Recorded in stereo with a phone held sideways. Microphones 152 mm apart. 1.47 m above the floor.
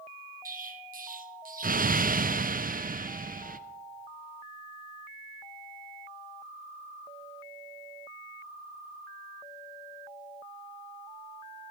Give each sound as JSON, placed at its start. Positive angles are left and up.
{"t": 0.5, "sound": "an explosion", "side_deg": -70, "distance_m": 0.5}